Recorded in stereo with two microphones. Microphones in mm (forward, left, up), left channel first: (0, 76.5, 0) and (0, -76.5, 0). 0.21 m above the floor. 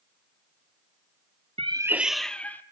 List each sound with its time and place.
1.6 s a cat meowing: 40° right (ahead or behind), 0.5 m; by 2.6 s 10° left (ahead or behind), 1.3 m